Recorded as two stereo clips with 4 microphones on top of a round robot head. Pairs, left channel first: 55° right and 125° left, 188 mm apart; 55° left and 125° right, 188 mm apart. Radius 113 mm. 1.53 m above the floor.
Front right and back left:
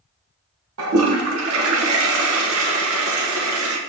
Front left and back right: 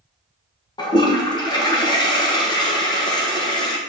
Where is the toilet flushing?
120° left, 1.2 m.